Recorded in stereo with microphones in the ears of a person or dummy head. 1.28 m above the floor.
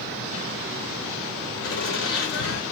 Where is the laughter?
55° left (ahead or behind), 0.8 m.